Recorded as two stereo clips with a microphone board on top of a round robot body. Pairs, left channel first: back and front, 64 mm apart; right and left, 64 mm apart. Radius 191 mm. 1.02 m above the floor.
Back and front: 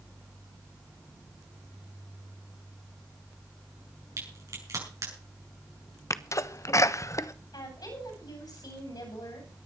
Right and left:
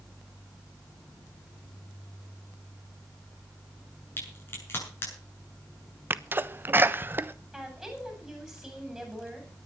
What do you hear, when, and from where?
4.2 s a crack: 35° right, 7.5 m
6.1 s a sneeze: 145° left, 1.2 m
7.5 s a woman speaking: 175° left, 9 m